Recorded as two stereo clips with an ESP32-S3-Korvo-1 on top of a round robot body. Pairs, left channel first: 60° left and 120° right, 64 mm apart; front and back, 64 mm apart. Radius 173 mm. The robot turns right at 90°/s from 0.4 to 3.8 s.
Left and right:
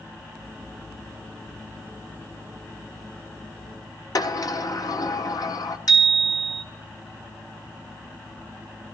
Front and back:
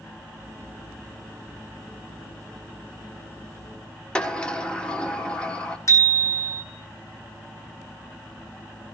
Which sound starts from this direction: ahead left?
A bicycle bell, at 5.9 s.